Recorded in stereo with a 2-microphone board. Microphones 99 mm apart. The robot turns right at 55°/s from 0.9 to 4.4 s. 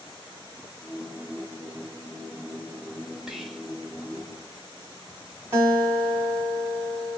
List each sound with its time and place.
3.3 s whispering: 5° right (ahead or behind), 0.7 m; by 3.7 s 5° left (ahead or behind), 0.7 m
5.5 s a guitar: 25° right (ahead or behind), 1.4 m